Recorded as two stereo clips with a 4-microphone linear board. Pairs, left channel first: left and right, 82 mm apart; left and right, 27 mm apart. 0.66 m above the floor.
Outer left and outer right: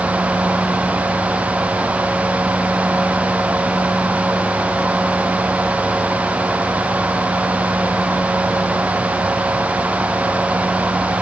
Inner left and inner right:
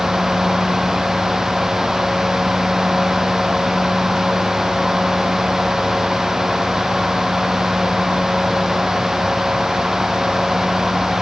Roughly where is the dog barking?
No dog barking in this recording.